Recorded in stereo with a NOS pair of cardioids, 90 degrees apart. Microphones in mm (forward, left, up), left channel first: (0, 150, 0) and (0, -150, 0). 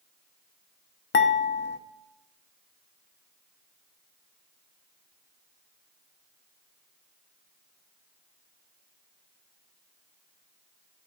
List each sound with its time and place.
1.1 s dishes clattering: 40° left, 1.0 m